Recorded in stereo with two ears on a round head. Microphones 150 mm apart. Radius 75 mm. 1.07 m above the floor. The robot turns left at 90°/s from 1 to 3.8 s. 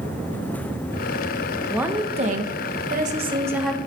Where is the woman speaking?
Straight ahead, 1.0 m; by 3.8 s 170° left, 1.0 m.